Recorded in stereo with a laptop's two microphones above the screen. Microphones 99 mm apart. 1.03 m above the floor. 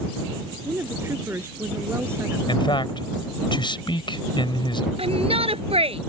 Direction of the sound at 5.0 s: 80° right.